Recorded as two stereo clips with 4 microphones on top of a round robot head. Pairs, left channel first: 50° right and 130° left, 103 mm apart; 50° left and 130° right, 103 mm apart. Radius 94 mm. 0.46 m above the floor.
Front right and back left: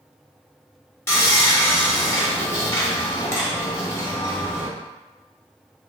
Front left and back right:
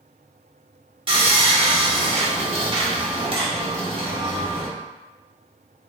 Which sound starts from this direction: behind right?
Sawing, at 1.1 s.